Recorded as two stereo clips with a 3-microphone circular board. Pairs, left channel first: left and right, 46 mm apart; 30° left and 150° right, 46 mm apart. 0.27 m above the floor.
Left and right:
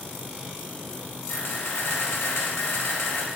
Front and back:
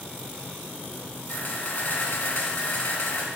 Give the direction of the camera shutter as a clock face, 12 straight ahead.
9 o'clock.